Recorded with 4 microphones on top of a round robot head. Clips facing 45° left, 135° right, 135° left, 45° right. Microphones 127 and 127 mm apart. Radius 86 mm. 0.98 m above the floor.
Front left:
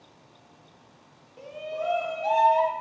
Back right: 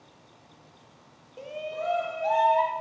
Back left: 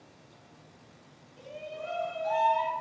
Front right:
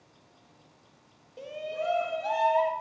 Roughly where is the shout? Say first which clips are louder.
Front left 1 dB, front right 6 dB; right.